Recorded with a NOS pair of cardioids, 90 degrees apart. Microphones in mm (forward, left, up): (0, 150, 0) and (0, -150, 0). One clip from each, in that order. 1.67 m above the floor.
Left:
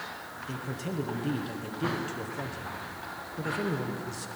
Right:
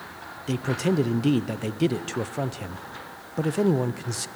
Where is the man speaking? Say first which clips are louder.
Right 12 dB; 60° right, 1.0 m.